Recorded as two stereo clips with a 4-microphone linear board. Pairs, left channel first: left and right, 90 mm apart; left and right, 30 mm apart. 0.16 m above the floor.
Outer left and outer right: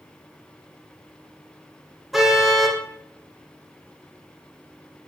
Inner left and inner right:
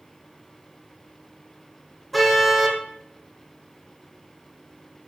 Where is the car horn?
Centre (ahead or behind), 4 m.